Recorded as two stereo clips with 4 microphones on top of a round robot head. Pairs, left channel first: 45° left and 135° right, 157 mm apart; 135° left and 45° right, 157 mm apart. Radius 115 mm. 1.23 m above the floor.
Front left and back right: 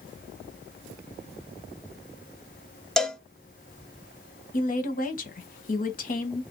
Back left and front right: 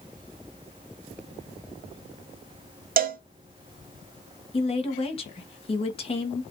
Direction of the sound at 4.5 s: 80° left.